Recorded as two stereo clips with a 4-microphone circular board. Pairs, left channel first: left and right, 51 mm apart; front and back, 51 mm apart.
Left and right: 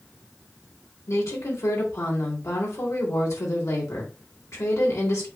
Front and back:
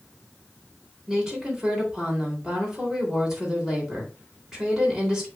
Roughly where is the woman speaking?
Left.